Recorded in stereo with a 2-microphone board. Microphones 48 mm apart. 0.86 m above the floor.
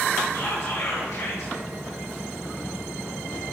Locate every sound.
0.3 s whispering: 70° left (ahead or behind), 4.5 m